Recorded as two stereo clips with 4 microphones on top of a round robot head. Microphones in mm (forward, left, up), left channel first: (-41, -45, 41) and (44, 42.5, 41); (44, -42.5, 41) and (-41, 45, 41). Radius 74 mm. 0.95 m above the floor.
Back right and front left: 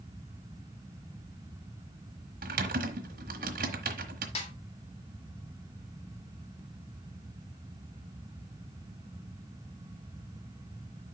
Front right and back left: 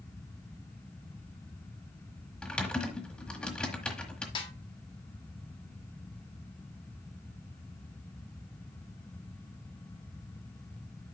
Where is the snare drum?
95° right, 1.6 m.